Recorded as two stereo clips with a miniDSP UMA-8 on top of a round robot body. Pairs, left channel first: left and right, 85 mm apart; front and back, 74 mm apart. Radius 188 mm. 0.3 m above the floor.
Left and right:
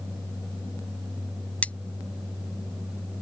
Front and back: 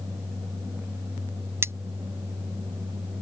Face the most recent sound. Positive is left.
turn(degrees=155)